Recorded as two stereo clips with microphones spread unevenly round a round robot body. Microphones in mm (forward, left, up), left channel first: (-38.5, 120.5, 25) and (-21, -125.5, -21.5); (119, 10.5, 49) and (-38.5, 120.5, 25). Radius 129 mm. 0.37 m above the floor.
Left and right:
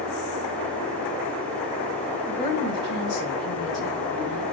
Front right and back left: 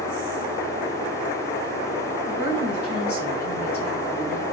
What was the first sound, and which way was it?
A woman speaking, straight ahead.